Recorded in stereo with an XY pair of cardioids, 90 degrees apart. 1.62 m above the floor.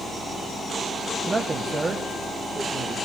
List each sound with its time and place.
1.3 s a man speaking: 30° right, 1.0 m; by 2.9 s 35° right, 2.0 m